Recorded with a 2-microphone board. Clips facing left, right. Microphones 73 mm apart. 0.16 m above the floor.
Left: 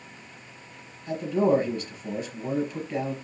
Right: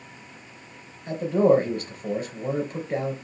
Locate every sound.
1.1 s a man speaking: 50° right (ahead or behind), 3.5 m